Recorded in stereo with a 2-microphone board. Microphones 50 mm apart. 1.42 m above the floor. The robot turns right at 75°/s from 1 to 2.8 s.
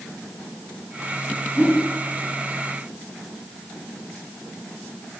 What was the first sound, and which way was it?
A whoosh, 30° right (ahead or behind).